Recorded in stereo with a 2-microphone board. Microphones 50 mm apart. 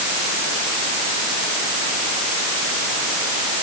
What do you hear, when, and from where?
Only background noise.